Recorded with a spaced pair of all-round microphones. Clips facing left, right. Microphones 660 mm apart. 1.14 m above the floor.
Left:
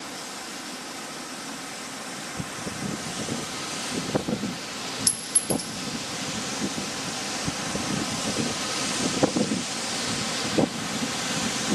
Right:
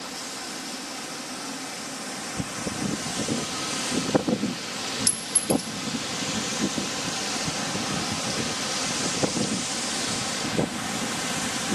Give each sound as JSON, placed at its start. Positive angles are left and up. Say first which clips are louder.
{"t": 5.1, "sound": "a clink", "louder": "right 5 dB", "side_deg": -25, "distance_m": 0.6}